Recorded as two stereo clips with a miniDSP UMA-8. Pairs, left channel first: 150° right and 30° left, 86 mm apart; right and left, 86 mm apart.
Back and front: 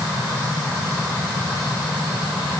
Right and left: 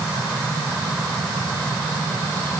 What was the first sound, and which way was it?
Only background noise.